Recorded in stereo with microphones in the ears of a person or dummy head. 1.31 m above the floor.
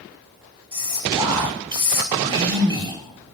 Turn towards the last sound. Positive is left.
turn(degrees=-15)  # may be behind; listen again after turning